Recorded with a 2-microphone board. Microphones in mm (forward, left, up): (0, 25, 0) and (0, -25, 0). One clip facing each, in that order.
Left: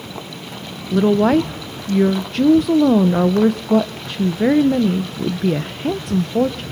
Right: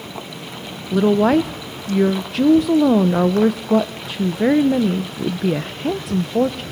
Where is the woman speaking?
Centre (ahead or behind), 0.7 m.